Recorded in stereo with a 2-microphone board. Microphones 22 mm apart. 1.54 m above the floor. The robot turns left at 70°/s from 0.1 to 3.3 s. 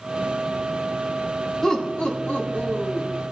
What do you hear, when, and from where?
1.6 s laughter: 150° left, 3 m; by 3.1 s 50° left, 3 m